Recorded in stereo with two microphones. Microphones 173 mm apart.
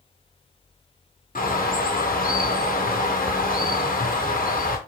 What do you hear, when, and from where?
1.4 s a bird: 55° left (ahead or behind), 0.8 m